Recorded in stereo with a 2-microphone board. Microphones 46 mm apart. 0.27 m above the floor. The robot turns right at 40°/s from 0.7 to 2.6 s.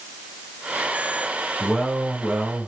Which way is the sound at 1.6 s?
170° left.